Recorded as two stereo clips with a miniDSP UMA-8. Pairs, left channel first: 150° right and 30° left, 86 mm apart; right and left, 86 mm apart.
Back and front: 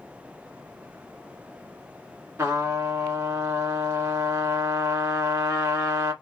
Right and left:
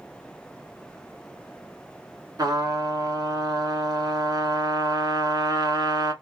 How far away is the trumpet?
About 0.9 m.